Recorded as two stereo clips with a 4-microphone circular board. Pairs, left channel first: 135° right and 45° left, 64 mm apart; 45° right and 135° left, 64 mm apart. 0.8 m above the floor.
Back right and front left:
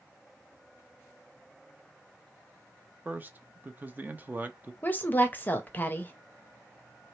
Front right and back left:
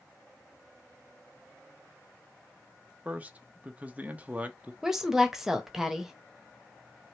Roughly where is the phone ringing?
No phone ringing in this recording.